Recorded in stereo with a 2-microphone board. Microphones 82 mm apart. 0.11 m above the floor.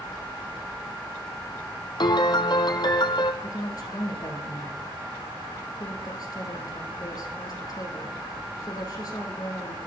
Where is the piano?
60° left (ahead or behind), 0.6 m.